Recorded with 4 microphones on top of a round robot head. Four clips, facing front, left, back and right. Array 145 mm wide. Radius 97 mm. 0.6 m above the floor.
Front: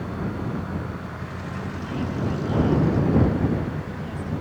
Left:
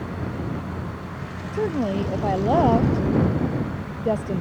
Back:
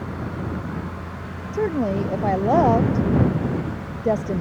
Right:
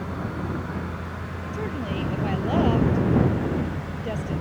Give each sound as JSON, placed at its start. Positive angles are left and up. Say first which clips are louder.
{"t": 1.5, "sound": "a woman speaking", "louder": "left 7 dB, back 11 dB", "azimuth_deg": 150}